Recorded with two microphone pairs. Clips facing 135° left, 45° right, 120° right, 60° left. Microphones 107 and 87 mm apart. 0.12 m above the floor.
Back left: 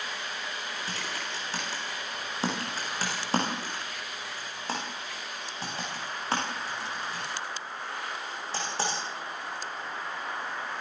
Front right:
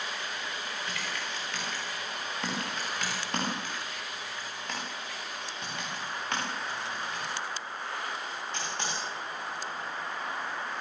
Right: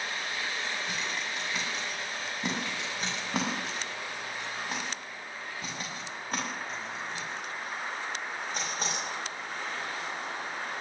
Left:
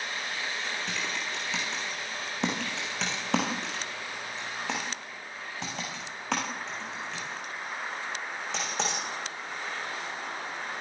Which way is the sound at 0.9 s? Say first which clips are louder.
Back left 1 dB, left 1 dB; 80° left.